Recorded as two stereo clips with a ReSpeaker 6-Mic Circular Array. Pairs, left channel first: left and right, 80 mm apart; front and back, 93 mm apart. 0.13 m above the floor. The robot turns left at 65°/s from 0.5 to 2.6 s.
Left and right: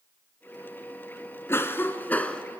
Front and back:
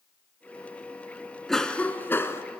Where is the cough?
85° left, 1.1 m; by 2.4 s 20° left, 1.1 m.